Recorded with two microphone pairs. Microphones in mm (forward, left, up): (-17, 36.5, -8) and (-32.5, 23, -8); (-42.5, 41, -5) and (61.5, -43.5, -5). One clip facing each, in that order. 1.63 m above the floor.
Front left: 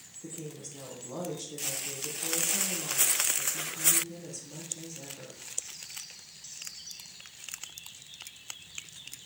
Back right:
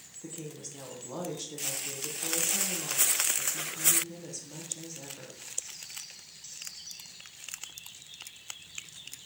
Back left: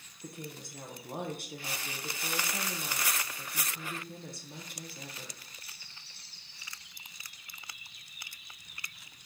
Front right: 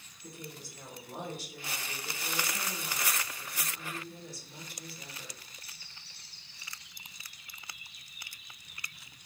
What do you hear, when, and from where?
0.2 s a woman speaking: 155° left, 1.0 m